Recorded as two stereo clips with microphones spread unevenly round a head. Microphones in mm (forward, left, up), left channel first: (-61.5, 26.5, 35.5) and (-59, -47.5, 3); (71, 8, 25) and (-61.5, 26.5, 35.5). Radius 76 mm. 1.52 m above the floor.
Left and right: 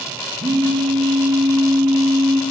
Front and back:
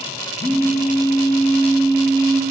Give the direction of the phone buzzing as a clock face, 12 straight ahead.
3 o'clock.